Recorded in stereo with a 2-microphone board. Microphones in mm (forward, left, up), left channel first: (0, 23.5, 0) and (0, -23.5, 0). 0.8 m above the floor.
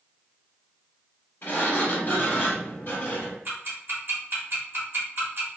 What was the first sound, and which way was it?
A sliding door, 50° left (ahead or behind).